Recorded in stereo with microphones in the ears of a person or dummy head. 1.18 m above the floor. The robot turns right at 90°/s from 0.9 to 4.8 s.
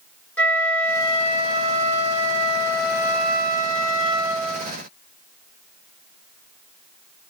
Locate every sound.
0.4 s a flute: 5° left, 0.9 m; by 4.7 s 10° right, 0.9 m